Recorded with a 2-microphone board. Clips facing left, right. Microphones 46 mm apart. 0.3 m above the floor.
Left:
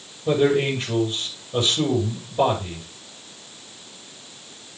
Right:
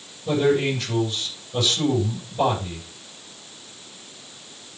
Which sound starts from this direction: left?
A man speaking, at 0.3 s.